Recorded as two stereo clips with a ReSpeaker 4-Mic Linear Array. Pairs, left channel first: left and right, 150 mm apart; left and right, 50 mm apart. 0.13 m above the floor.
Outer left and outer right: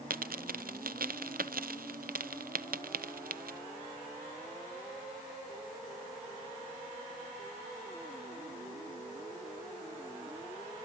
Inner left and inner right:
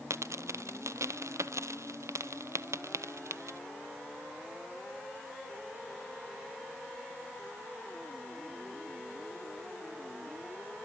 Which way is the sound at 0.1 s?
80° right.